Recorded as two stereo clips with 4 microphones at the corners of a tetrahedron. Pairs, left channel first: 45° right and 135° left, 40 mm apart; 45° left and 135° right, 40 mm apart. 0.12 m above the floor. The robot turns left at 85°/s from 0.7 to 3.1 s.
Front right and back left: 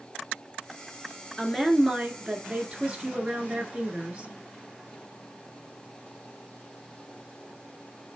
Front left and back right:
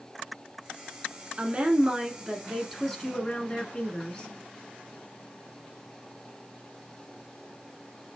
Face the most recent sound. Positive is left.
turn(degrees=100)